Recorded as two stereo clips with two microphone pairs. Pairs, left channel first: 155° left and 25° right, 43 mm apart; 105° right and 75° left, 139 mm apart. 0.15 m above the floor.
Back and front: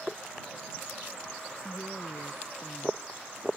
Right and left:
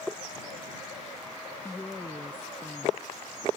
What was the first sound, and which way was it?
A woman speaking, 175° left.